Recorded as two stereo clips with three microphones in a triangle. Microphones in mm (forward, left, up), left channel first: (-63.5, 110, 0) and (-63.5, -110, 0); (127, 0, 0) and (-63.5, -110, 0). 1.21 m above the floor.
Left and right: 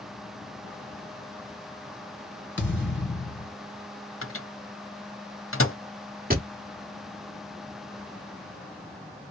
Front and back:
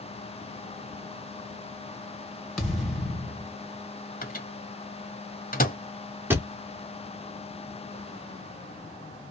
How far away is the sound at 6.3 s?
About 1.0 m.